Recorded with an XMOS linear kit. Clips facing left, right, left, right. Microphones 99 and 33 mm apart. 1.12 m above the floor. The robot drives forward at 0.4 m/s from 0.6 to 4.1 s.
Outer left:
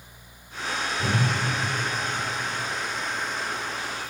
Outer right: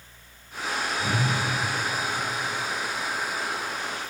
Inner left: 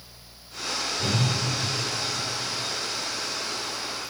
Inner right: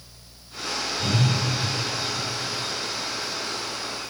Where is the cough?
No cough in this recording.